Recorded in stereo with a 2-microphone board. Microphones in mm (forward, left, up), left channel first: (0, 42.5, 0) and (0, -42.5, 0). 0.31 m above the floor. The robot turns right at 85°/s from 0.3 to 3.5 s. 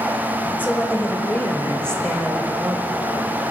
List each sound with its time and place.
0.6 s a woman speaking: 20° left (ahead or behind), 1.4 m; by 2.9 s 25° right (ahead or behind), 1.4 m